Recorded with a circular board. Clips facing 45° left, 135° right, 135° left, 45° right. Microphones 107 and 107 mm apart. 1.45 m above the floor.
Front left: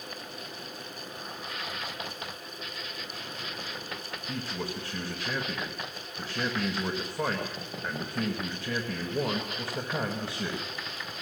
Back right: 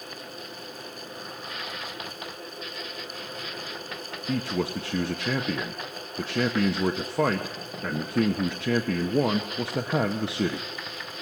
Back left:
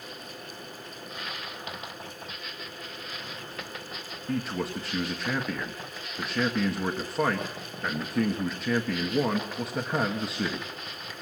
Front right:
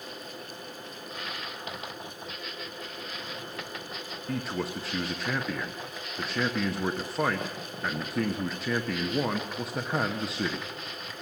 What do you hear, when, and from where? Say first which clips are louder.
4.3 s a man speaking: back right 8 dB, back left 2 dB; 135° right, 1.3 m